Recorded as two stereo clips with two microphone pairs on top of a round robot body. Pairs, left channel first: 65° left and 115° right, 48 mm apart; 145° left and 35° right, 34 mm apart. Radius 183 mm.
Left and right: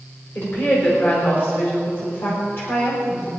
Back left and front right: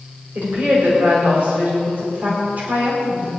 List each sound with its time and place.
0.3 s a woman speaking: 15° left, 4 m